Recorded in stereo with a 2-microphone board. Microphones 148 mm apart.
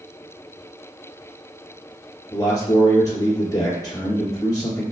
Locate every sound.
2.3 s a man speaking: 20° left (ahead or behind), 1.8 m